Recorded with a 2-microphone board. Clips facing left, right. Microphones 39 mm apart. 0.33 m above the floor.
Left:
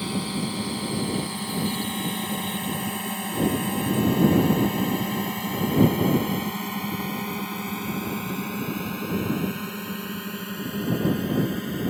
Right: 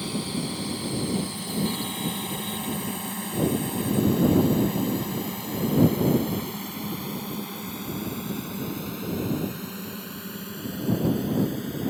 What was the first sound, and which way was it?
A drone, 20° left (ahead or behind).